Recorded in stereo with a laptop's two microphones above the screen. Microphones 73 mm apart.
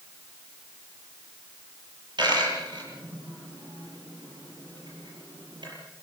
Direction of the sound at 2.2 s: 85° right.